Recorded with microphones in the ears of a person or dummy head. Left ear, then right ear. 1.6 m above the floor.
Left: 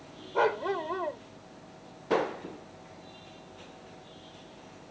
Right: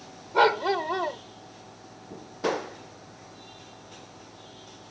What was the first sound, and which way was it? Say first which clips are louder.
A dog barking: right 6 dB; 35° right (ahead or behind).